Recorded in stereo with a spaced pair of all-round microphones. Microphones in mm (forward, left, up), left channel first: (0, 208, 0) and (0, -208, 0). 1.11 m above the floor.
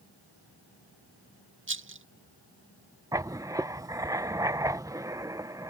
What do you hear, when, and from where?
1.7 s a rattle: 30° right (ahead or behind)
3.1 s writing: 10° right (ahead or behind)